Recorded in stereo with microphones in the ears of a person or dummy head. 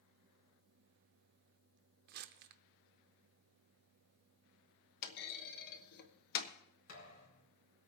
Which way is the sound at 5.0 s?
60° left (ahead or behind).